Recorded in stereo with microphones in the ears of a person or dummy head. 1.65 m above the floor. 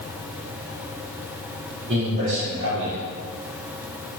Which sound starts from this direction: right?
A man speaking, at 1.9 s.